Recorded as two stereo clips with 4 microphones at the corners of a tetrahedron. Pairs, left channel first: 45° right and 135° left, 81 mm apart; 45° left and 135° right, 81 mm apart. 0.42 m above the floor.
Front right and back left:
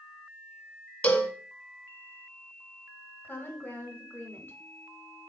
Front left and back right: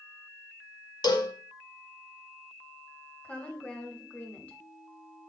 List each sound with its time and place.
1.0 s a cowbell: 30° left, 0.6 m
3.2 s a woman speaking: 15° right, 0.8 m